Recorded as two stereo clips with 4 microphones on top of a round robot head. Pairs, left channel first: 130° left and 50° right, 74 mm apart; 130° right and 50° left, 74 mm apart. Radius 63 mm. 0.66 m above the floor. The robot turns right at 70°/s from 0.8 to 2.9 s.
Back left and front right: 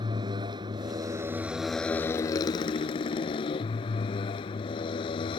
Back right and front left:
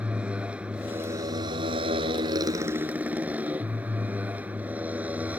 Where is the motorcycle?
25° right; by 5.4 s 125° left.